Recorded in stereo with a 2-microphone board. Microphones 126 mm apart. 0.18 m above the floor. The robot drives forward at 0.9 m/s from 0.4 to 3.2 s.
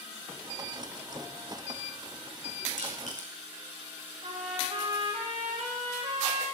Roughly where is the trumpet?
Right.